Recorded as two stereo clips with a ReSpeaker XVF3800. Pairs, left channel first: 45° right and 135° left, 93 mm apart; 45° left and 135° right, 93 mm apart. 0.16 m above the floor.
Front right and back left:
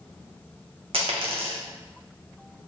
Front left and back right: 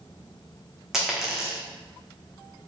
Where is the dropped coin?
140° left, 0.8 m.